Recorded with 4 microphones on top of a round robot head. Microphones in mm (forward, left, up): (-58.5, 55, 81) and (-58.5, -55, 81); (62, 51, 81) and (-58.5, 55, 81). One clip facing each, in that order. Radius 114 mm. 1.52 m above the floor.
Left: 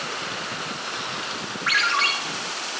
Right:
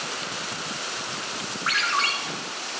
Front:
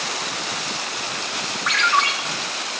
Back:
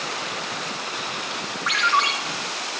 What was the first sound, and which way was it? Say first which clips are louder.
A ringtone: left 2 dB, front 1 dB; 105° right.